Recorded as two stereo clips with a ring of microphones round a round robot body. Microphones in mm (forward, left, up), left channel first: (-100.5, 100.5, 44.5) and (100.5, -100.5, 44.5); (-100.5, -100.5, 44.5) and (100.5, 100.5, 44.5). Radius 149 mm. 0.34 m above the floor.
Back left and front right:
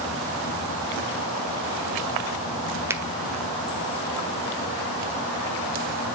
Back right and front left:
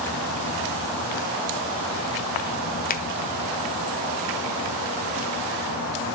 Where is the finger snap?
120° right, 1.4 m.